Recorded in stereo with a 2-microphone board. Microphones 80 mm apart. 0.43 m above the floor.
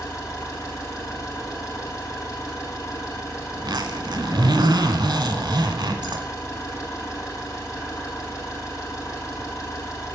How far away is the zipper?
About 1.0 m.